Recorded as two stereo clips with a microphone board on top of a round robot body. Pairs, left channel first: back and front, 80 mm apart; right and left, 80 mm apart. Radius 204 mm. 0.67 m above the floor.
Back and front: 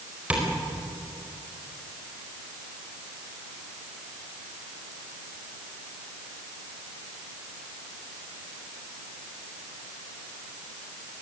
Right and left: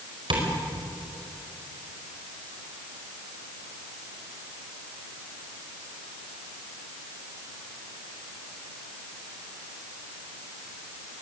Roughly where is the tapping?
Left.